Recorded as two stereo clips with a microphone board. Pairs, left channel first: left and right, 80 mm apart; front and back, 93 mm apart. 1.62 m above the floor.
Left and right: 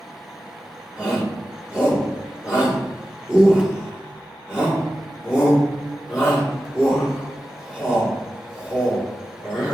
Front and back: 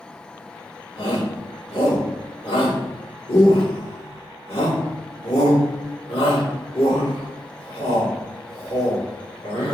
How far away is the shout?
About 3.5 m.